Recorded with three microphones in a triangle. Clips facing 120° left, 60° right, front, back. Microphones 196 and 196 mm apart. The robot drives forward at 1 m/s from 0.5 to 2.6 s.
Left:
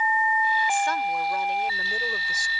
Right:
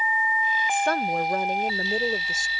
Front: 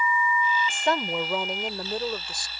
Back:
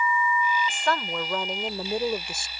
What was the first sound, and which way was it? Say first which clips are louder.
A woman speaking: right 2 dB, front 2 dB; 60° right.